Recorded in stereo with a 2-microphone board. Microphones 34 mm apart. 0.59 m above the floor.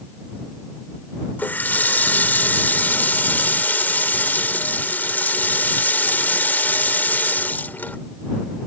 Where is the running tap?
65° left (ahead or behind).